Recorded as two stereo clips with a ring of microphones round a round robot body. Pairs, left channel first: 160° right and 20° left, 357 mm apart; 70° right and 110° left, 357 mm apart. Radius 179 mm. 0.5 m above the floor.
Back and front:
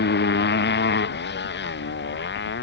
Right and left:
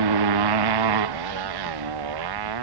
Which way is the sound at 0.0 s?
140° left.